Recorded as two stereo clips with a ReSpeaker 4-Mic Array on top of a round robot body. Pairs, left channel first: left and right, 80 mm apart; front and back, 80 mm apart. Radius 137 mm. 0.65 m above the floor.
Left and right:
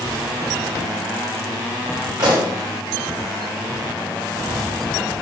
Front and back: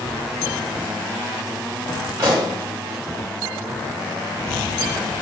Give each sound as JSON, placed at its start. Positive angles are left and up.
{"t": 2.2, "sound": "a pop", "azimuth_deg": -130, "distance_m": 4.0}